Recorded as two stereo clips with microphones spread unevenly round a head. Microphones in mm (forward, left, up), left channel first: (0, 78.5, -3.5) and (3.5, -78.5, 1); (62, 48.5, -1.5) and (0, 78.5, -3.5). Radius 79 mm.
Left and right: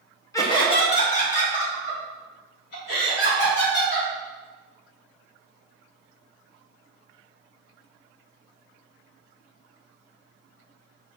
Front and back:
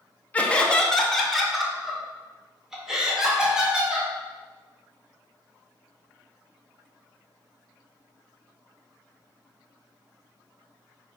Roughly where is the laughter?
Ahead left.